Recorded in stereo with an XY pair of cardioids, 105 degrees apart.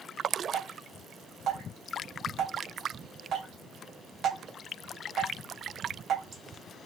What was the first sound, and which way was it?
Dripping, 65° right.